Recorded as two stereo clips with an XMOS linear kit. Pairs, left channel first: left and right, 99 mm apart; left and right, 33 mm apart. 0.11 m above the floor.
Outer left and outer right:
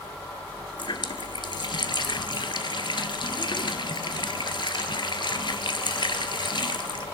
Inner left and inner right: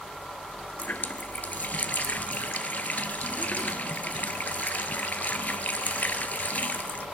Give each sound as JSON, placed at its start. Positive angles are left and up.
{"t": 0.8, "sound": "a running tap", "side_deg": 50, "distance_m": 1.3}